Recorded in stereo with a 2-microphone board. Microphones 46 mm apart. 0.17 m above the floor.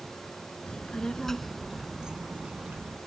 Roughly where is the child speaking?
Left.